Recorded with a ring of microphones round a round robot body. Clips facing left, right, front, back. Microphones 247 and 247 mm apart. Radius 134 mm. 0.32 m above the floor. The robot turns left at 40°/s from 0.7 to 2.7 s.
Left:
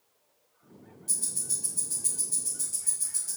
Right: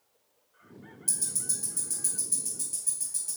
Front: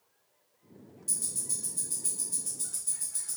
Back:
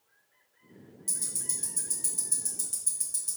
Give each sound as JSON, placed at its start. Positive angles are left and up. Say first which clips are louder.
{"t": 1.1, "sound": "ticking", "louder": "right 1 dB, even", "azimuth_deg": -130, "distance_m": 1.6}